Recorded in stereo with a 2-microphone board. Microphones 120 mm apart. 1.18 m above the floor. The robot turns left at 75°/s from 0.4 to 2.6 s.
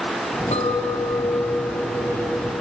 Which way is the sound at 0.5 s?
80° left.